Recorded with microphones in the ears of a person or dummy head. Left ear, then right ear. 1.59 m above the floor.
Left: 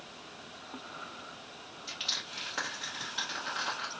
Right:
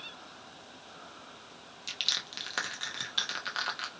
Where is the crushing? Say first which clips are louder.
Right 3 dB; 35° right (ahead or behind), 0.7 m.